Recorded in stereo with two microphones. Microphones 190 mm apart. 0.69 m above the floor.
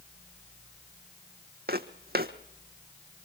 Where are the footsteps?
55° right (ahead or behind), 1.3 m.